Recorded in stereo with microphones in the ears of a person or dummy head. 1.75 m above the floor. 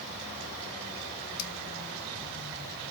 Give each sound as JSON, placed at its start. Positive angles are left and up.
{"t": 1.4, "sound": "scissors", "side_deg": 80, "distance_m": 0.6}